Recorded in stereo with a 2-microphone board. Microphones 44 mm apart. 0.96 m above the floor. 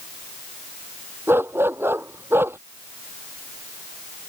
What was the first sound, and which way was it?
A dog barking, 60° right (ahead or behind).